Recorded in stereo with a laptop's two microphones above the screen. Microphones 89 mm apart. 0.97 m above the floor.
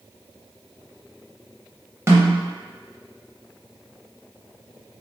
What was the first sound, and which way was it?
A snare drum, 30° right (ahead or behind).